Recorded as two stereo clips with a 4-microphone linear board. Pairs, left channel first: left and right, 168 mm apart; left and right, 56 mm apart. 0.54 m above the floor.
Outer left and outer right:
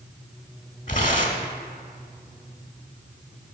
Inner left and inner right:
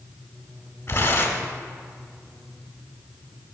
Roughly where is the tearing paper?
Left.